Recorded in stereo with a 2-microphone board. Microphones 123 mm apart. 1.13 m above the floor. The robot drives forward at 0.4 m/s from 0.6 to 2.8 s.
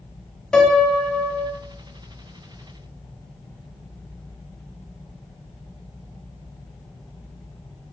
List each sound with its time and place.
0.5 s a piano: 5° left (ahead or behind), 0.6 m